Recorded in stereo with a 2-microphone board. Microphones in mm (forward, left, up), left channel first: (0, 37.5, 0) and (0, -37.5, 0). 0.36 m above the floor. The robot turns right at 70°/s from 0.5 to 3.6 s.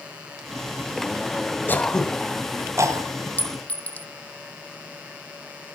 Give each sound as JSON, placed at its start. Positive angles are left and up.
{"t": 1.7, "sound": "throat clearing", "side_deg": 30, "distance_m": 2.5}
{"t": 3.4, "sound": "a clink", "side_deg": 20, "distance_m": 0.5}